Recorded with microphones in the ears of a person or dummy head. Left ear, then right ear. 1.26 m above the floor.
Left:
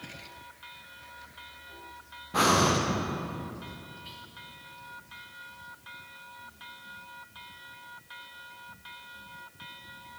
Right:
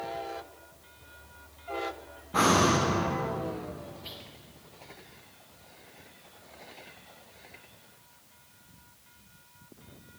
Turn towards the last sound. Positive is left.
turn(degrees=-20)  # may be behind; listen again after turning